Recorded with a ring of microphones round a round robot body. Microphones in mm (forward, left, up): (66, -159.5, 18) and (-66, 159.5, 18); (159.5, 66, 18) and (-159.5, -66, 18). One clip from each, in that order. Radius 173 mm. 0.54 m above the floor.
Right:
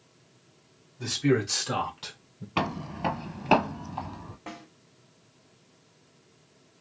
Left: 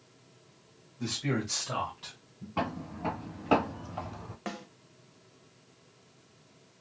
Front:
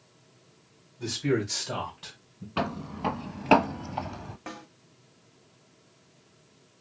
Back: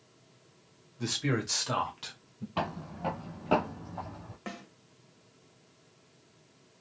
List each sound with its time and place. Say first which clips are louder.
1.0 s a man speaking: right 7 dB, front 3 dB; 150° right, 2.0 m; by 2.5 s 115° right, 1.6 m
2.6 s footsteps: right 4 dB, front 3 dB; 65° right, 0.8 m; by 4.4 s 35° left, 0.9 m
4.5 s a snare drum: left 3 dB, even; 125° left, 1.4 m